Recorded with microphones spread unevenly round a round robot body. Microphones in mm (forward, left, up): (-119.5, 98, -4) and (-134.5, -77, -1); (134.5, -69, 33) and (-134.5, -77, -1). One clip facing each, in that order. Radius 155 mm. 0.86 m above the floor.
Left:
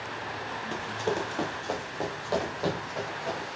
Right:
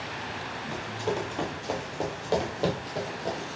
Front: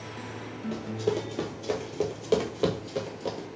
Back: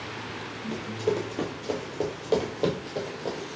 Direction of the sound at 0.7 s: 85° left.